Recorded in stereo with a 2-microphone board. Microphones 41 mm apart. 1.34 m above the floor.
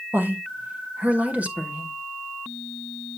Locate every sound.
0.1 s a woman speaking: 55° right (ahead or behind), 1.6 m; by 1.9 s 35° right (ahead or behind), 2.5 m